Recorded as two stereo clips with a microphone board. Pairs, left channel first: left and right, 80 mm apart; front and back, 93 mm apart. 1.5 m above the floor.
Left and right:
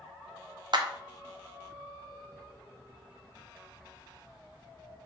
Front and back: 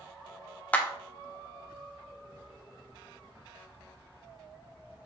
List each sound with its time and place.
0.7 s a clap: 70° right, 1.0 m